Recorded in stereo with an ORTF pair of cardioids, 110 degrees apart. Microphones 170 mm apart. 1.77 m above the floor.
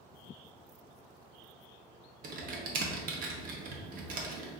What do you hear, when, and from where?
2.2 s typing on a keyboard: 60° right, 1.1 m